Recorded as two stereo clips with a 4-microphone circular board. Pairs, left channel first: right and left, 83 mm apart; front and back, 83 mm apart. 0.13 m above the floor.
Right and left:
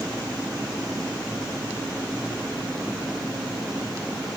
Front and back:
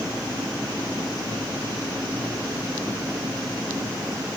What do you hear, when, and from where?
Only background noise.